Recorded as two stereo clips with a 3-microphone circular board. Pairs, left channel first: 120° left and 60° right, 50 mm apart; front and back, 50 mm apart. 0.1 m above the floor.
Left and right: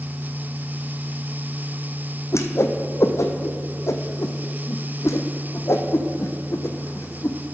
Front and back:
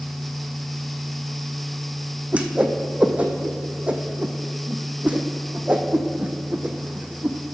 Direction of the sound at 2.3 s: 120° left.